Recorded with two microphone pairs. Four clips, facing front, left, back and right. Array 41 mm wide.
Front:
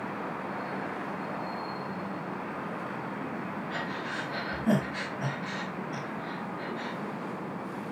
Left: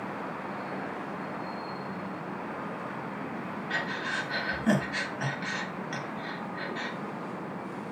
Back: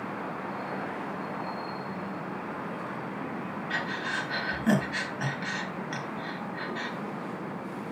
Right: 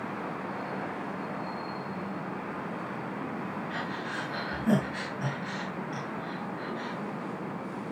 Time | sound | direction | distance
3.7 | breathing | 150° left | 3 m